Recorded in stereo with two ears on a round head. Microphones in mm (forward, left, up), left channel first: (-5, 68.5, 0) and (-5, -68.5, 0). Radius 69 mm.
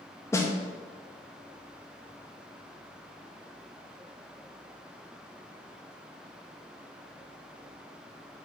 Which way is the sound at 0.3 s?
20° left (ahead or behind).